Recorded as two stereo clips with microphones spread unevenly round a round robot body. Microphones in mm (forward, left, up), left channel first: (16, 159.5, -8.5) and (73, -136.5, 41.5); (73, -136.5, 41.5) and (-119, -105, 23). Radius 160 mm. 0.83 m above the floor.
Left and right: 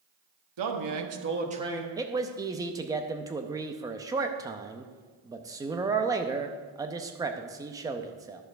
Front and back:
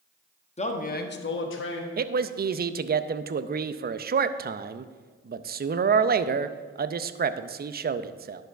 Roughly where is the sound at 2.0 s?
Behind.